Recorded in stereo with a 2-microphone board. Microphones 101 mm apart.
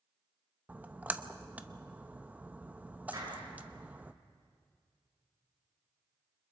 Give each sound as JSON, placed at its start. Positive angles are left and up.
{"t": 0.7, "sound": "a splash", "side_deg": -15, "distance_m": 0.8}
{"t": 3.1, "sound": "a clap", "side_deg": -40, "distance_m": 8.5}